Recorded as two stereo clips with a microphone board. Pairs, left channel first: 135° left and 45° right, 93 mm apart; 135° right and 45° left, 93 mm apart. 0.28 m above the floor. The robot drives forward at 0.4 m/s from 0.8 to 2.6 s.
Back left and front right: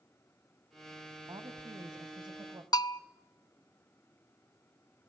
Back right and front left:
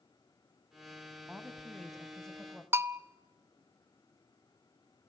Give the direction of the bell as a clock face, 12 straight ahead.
9 o'clock.